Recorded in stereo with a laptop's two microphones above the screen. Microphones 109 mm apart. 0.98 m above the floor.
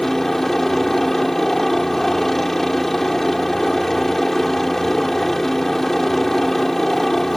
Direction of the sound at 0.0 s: 5° left (ahead or behind).